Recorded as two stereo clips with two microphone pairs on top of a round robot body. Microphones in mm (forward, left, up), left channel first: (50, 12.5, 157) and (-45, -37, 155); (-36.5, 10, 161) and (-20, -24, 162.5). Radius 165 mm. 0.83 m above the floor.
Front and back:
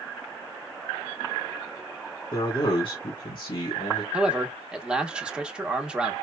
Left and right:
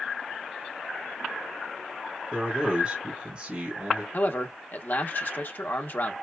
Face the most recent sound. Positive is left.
turn(degrees=130)